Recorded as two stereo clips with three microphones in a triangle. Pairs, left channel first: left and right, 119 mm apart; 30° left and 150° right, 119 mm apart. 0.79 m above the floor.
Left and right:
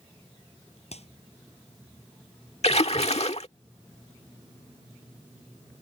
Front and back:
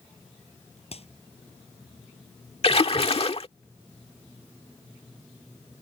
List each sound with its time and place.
0.9 s a clap: 60° left
2.6 s a splash: 65° left